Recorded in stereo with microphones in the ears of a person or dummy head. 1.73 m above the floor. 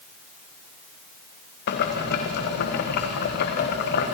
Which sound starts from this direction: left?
Boiling, at 1.7 s.